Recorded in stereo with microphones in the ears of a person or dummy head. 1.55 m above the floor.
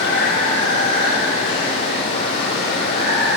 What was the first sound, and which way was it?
Running water, 50° left (ahead or behind).